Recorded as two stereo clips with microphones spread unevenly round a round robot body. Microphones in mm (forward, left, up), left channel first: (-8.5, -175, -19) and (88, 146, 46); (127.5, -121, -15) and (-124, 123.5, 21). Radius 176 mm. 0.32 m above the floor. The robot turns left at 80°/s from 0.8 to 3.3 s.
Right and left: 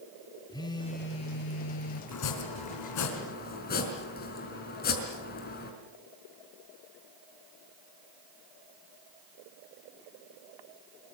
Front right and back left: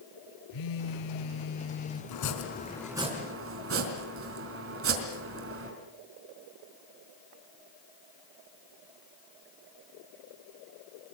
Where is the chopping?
70° right, 4 m; by 5.7 s 165° right, 4 m.